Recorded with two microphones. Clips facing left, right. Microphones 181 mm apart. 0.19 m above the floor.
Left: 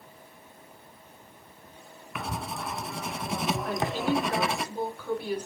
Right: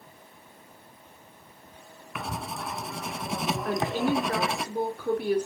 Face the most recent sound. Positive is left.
turn(degrees=-55)  # may be behind; listen again after turning